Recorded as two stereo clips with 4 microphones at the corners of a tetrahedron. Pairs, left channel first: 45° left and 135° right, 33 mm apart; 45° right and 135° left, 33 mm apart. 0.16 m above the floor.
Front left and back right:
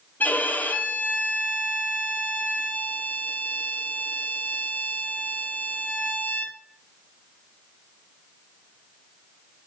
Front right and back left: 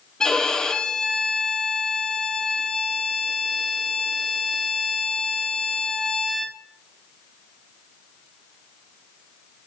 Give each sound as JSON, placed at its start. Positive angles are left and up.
{"t": 0.2, "sound": "a violin", "azimuth_deg": 30, "distance_m": 0.9}